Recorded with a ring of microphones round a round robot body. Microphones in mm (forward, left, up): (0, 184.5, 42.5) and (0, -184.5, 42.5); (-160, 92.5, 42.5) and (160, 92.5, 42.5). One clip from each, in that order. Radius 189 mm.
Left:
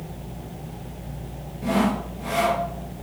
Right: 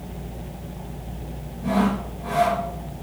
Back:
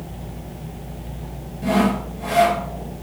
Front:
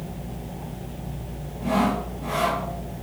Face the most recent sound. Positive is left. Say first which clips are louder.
# even, back 3 dB
turn(degrees=135)